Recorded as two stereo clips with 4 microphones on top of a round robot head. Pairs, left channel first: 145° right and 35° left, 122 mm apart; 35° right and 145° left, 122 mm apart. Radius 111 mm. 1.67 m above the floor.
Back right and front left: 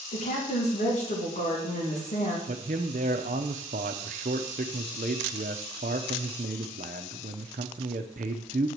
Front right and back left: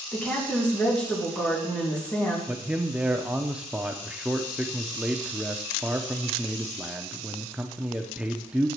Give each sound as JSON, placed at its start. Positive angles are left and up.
{"t": 0.1, "sound": "a woman speaking", "azimuth_deg": -115, "distance_m": 3.0}
{"t": 2.5, "sound": "a man speaking", "azimuth_deg": 65, "distance_m": 0.7}